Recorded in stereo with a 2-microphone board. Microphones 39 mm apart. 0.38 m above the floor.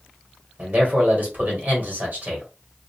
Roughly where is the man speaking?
Right.